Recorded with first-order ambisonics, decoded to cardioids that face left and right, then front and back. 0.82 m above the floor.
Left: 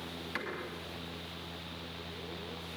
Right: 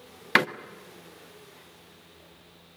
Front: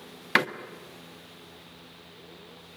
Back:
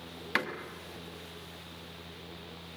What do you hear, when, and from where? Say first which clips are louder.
0.3 s a door slam: right 18 dB, front 8 dB; 65° right, 1.1 m